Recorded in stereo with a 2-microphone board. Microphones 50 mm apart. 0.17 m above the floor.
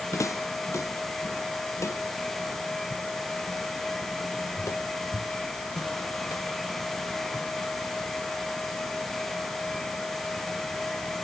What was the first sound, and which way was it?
Footsteps, 90° left.